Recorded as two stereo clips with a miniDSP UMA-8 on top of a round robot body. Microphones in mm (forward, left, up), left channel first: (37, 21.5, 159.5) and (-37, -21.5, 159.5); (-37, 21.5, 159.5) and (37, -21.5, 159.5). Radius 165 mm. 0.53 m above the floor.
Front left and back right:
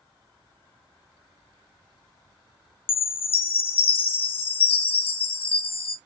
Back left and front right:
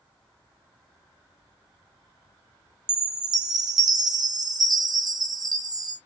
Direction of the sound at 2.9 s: 15° left.